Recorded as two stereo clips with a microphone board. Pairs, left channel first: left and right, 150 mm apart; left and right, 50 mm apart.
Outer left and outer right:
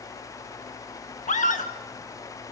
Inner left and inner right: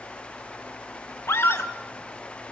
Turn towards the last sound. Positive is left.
turn(degrees=55)  # may be behind; listen again after turning